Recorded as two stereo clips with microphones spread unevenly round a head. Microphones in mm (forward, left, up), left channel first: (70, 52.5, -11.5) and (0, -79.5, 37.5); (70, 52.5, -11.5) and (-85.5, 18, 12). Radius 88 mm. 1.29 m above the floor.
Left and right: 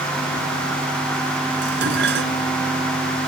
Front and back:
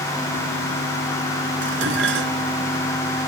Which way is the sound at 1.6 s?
140° right.